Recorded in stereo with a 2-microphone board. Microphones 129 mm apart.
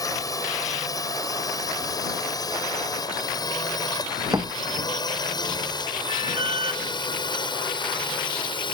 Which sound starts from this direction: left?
A drone, at 0.0 s.